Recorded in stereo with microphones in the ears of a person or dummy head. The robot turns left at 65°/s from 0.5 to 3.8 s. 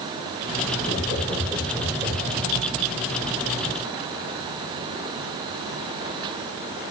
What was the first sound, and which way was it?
Laughter, 60° left (ahead or behind).